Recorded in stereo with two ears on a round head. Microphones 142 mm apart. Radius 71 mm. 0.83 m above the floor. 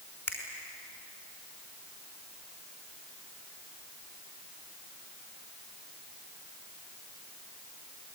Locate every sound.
0.3 s a finger snap: 15° left (ahead or behind), 5.5 m